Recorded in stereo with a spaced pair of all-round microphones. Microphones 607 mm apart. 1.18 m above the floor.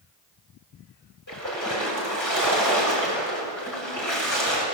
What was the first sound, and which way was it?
A splash, 30° left (ahead or behind).